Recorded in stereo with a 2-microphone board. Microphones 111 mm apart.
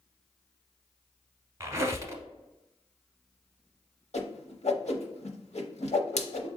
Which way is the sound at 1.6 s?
30° right (ahead or behind).